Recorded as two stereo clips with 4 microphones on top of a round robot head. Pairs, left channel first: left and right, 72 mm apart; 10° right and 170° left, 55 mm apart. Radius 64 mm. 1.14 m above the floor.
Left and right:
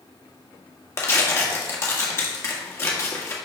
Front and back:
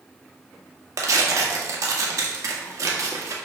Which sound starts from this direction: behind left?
Tearing paper, at 1.0 s.